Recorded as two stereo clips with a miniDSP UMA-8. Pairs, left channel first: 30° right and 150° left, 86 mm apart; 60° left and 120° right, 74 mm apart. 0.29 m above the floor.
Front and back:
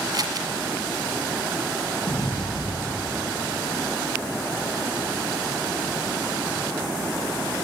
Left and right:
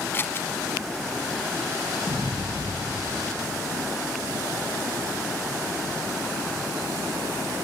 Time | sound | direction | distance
0.1 | scissors | 115° left | 1.4 m
2.1 | an explosion | 55° right | 9 m